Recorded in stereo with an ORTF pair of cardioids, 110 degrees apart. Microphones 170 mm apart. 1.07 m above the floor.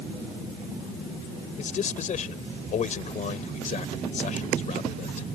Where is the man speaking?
45° left.